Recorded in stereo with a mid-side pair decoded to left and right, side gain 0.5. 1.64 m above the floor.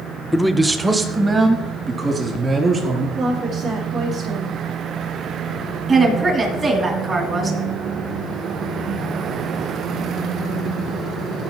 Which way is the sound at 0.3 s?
10° left.